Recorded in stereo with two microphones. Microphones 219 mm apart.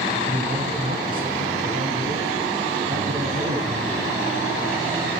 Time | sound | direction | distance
0.3 | a man speaking | 40° right (ahead or behind) | 4.5 m